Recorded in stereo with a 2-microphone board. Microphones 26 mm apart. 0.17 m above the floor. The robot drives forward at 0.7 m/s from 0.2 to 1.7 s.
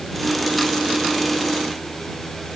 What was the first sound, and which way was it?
Only background noise.